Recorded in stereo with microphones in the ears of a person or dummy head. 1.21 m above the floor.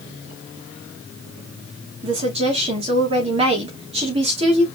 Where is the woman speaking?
30° right (ahead or behind), 2 m.